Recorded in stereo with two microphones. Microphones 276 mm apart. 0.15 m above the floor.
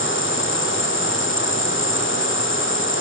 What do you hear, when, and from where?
0.0 s an insect: 45° left (ahead or behind)